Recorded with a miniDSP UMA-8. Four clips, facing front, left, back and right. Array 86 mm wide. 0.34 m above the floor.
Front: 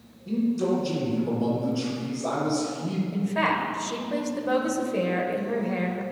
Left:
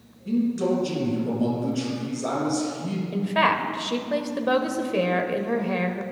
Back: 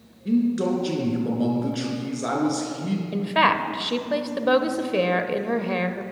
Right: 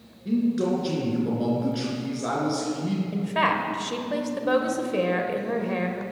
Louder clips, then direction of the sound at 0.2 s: Even, back 3 dB; 160° right.